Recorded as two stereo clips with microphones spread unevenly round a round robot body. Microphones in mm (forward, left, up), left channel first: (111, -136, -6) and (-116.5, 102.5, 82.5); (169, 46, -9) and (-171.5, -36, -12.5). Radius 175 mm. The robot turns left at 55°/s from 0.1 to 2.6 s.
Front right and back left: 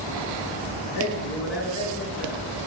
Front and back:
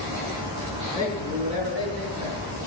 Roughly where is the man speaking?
Ahead right.